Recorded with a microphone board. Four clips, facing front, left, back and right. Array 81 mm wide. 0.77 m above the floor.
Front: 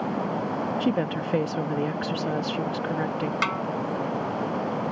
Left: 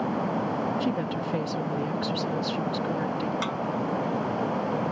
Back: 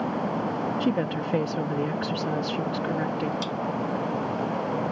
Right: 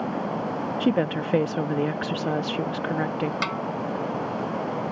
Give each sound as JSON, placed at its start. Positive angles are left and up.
{"t": 0.8, "sound": "a woman speaking", "azimuth_deg": -85}
{"t": 3.4, "sound": "a snare drum", "azimuth_deg": -20}